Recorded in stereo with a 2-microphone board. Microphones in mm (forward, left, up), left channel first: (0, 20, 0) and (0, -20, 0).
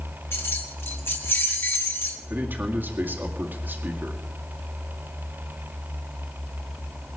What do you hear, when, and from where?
0.3 s keys jangling: 65° left (ahead or behind), 1.7 m
2.3 s a man speaking: 50° right (ahead or behind), 2.0 m